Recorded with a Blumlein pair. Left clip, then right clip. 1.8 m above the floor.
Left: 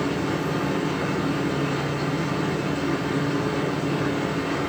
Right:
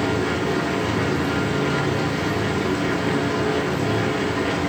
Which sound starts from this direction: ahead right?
A machine running, at 0.0 s.